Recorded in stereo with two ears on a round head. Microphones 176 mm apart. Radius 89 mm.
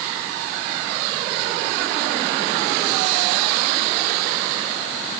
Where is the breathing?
No breathing in this recording.